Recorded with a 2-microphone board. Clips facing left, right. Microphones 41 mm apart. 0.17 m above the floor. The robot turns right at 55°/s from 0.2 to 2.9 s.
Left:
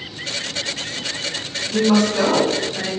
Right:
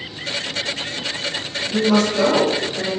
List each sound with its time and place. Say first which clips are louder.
1.7 s a woman speaking: left 1 dB; 25° left (ahead or behind), 1.2 m; by 2.9 s centre (ahead or behind), 1.2 m